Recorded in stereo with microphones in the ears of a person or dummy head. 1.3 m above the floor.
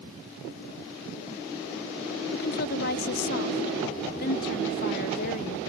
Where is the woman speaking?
55° left (ahead or behind).